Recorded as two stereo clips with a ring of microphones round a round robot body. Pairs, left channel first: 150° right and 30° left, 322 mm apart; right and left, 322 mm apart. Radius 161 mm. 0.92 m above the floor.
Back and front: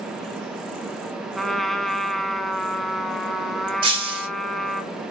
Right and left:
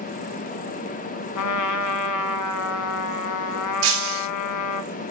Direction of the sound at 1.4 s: 60° right.